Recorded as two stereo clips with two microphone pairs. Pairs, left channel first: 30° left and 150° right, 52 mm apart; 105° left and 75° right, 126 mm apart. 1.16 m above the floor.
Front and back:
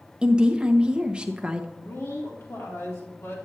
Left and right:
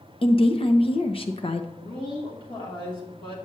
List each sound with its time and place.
0.2 s a woman speaking: 145° left, 0.8 m
1.8 s a woman speaking: 60° left, 2.5 m